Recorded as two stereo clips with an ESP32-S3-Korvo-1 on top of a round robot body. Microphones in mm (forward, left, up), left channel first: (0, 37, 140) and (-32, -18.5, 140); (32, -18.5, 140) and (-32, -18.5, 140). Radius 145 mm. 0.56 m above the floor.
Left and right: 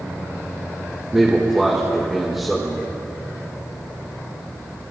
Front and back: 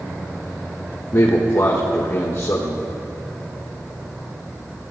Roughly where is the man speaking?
Ahead right.